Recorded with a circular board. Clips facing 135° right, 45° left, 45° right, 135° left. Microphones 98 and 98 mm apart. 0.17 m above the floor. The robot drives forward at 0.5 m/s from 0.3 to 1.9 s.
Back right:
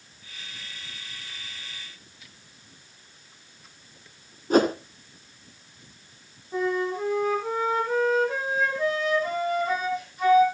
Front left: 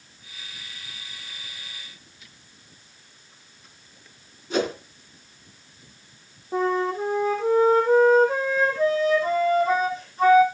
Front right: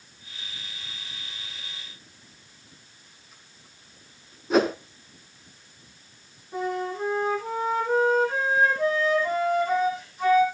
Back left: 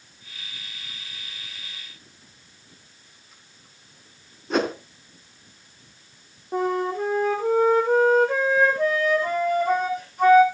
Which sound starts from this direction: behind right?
A whoosh, at 4.5 s.